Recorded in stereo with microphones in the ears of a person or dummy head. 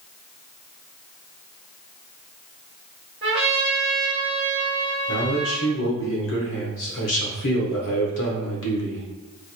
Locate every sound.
3.2 s a trumpet: 25° right (ahead or behind), 1.6 m
5.1 s a man speaking: 60° left (ahead or behind), 1.0 m